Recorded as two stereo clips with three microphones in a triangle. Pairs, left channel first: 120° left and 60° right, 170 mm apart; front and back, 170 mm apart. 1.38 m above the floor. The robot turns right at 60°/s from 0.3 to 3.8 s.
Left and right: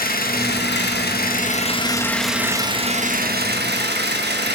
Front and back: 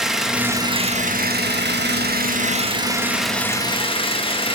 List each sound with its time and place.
0.0 s an engine running: 95° left, 1.4 m; by 4.6 s 55° right, 1.4 m